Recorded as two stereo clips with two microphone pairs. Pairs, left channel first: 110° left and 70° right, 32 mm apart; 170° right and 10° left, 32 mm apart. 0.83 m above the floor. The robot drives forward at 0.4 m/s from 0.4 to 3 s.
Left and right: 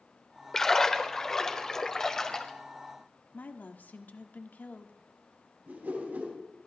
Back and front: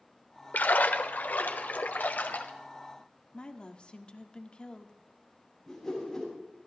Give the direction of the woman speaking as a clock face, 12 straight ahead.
7 o'clock.